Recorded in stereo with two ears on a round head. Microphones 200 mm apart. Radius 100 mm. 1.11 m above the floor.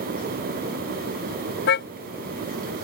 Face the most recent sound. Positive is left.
turn(degrees=55)  # may be behind; listen again after turning